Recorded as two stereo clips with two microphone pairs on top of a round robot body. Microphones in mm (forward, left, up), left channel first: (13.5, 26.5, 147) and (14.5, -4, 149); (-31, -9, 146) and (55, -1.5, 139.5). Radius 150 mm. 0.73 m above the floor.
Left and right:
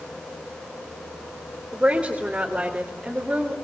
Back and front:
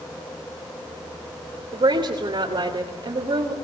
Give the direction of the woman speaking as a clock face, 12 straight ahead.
1 o'clock.